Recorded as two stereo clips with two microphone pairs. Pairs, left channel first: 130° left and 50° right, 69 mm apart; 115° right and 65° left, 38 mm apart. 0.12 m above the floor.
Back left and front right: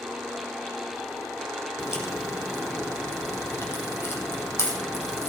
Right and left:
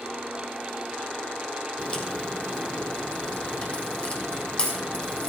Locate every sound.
1.8 s a crack: straight behind, 2.5 m